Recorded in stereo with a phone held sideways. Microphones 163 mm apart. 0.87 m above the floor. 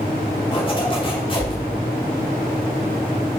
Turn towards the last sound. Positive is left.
turn(degrees=30)  # may be behind; listen again after turning